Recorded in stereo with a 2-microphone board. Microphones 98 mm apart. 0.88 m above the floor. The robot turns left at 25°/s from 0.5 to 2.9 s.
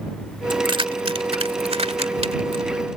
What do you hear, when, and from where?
0.5 s keys jangling: 55° right (ahead or behind); by 2.6 s 70° right (ahead or behind)